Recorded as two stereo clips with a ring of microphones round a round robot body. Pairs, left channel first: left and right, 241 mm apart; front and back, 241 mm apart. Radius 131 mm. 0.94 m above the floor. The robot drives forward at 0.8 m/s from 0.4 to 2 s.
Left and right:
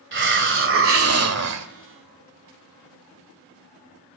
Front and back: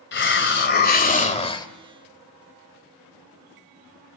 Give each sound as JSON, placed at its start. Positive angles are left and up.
{"t": 0.1, "sound": "a hiss", "azimuth_deg": -45, "distance_m": 2.0}